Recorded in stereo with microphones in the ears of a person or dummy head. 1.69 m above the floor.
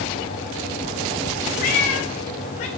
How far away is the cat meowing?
About 1.7 m.